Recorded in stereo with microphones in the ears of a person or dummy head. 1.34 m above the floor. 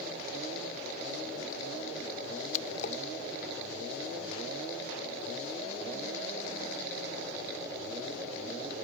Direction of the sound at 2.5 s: 40° left (ahead or behind).